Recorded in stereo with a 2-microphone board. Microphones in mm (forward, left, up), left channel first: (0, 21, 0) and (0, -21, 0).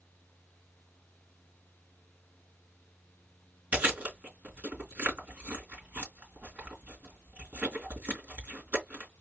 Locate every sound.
3.7 s chewing: 35° right (ahead or behind), 3 m